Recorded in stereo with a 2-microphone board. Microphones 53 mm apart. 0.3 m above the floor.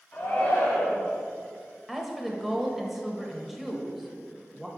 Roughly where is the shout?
Left.